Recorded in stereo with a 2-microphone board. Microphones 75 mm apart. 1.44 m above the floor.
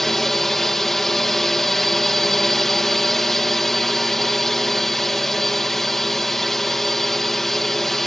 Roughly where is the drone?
Centre.